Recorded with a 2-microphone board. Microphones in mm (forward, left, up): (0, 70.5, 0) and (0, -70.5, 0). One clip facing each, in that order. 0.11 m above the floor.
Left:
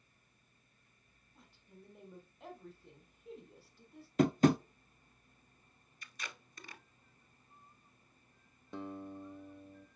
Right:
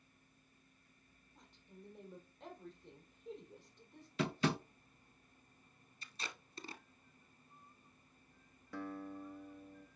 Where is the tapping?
45° left (ahead or behind), 0.5 m.